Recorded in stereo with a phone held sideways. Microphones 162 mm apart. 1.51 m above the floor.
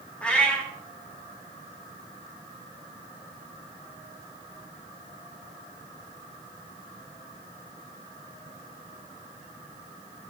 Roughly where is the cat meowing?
Centre.